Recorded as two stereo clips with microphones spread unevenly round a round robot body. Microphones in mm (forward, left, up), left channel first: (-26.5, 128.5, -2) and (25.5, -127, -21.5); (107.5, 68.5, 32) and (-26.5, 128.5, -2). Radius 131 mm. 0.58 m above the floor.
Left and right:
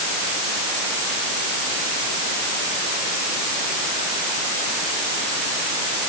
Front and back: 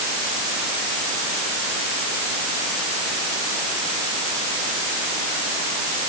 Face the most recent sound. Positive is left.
No sound to turn to.